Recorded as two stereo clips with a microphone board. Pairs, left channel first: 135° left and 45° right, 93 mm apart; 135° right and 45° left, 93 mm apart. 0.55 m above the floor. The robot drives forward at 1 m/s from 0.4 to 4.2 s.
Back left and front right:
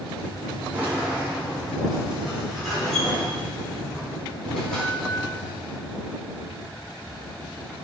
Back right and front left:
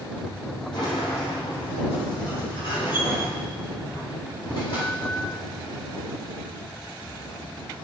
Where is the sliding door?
120° right, 4 m; by 5.2 s 145° right, 6.5 m.